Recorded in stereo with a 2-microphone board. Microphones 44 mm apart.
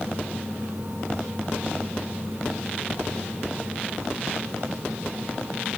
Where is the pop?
No pop in this recording.